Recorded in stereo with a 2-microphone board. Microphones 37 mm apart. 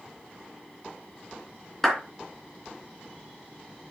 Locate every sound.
1.8 s a clap: 10° left (ahead or behind), 3 m